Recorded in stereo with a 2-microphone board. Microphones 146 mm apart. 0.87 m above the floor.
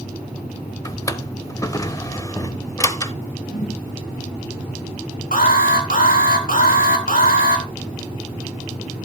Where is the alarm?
75° left (ahead or behind), 3 m.